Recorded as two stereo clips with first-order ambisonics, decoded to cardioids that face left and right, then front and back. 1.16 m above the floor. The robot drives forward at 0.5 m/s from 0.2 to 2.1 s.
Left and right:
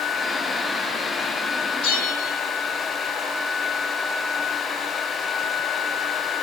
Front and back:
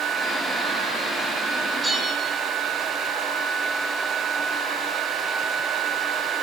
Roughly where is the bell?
Left.